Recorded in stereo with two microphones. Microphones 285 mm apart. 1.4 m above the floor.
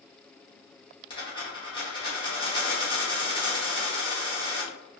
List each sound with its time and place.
1.1 s a dropped coin: 15° left (ahead or behind), 1.3 m